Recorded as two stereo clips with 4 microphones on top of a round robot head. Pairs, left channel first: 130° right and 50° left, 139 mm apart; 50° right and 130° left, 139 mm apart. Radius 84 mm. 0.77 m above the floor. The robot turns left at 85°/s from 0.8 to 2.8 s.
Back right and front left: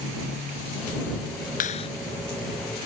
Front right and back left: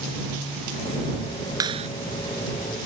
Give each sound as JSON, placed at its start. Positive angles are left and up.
{"t": 1.6, "sound": "a clap", "azimuth_deg": -165}